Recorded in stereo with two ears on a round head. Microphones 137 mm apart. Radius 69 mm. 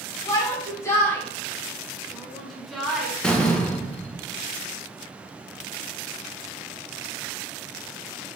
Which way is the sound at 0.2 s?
25° left (ahead or behind).